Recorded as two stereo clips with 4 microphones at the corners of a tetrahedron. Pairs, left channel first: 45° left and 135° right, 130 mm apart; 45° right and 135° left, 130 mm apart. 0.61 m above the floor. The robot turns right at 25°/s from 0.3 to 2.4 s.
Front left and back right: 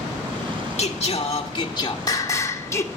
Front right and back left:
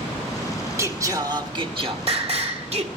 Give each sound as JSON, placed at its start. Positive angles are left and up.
{"t": 0.8, "sound": "singing", "azimuth_deg": 70, "distance_m": 1.6}